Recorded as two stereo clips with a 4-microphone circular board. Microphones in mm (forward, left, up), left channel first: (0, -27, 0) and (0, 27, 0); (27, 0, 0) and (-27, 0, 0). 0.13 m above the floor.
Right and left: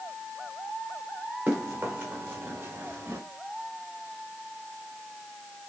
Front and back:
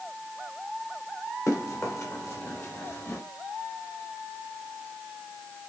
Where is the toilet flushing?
I don't hear a toilet flushing.